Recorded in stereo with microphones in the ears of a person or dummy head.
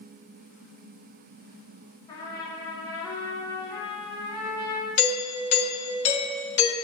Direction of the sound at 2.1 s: 15° left (ahead or behind).